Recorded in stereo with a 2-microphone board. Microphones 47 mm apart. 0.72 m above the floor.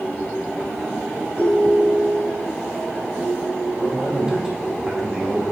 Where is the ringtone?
30° left (ahead or behind), 3.5 m.